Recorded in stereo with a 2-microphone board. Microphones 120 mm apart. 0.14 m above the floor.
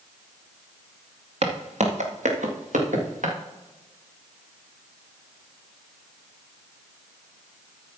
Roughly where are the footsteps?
Right.